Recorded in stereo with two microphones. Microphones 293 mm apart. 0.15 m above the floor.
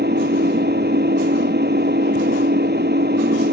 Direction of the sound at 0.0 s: 35° right (ahead or behind).